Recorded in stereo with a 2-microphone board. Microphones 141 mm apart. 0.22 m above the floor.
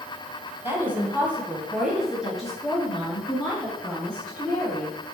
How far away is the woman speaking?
About 1.2 m.